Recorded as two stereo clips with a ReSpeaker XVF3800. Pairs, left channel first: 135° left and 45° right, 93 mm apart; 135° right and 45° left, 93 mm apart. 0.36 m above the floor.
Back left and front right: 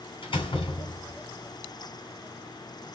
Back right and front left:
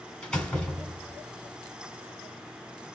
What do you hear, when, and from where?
0.2 s a door slam: 150° left, 1.7 m